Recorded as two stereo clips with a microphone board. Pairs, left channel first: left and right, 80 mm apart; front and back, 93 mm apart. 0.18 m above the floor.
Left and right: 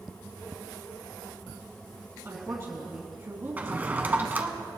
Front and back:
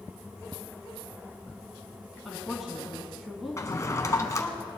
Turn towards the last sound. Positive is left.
turn(degrees=-35)